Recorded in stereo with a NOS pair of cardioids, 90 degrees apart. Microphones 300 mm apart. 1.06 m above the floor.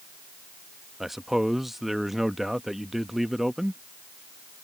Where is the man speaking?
Straight ahead.